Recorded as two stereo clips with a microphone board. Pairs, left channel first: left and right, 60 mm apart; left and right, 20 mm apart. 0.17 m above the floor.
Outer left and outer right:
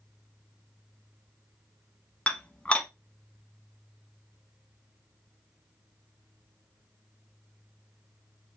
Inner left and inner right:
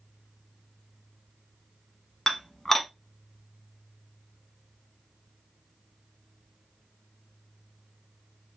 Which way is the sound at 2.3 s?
20° left (ahead or behind).